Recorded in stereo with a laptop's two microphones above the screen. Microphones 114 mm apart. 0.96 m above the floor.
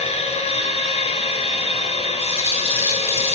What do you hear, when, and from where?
0.0 s a machine running: 70° left (ahead or behind), 2.5 m
2.2 s a rattle: 20° left (ahead or behind), 2.0 m